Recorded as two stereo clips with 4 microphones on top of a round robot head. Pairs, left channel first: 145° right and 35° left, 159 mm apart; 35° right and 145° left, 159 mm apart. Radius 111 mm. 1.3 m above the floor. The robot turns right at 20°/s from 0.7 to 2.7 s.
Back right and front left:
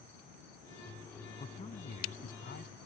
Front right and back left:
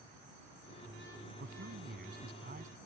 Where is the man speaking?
160° left; by 2.8 s 175° right.